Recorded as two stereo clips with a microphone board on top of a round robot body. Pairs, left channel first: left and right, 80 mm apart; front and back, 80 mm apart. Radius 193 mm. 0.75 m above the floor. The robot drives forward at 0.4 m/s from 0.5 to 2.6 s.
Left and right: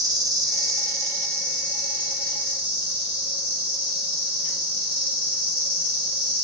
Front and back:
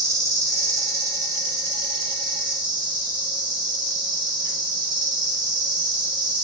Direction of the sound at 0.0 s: 130° right.